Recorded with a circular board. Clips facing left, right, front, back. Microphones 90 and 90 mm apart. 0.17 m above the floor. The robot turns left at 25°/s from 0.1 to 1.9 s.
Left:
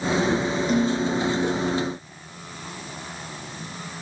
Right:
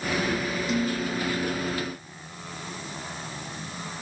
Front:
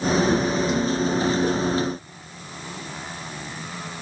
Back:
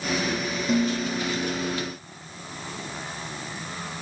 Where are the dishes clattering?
140° left, 4 m; by 1.5 s 120° left, 4 m.